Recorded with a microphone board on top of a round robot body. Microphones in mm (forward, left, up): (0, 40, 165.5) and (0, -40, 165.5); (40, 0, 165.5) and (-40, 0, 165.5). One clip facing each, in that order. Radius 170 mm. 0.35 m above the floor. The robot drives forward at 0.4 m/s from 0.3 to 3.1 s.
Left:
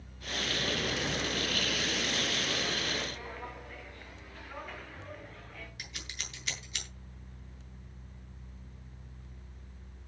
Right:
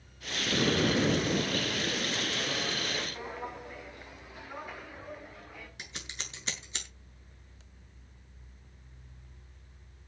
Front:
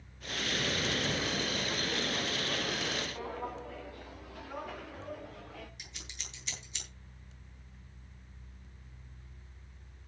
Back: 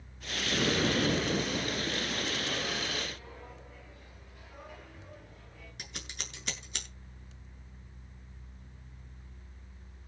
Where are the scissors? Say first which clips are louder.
Right 1 dB, back 5 dB; 150° right, 7.5 m.